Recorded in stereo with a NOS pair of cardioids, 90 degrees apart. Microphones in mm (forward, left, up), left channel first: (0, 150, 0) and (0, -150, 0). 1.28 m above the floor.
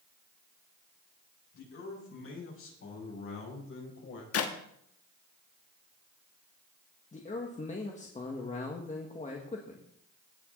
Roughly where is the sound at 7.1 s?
Ahead left.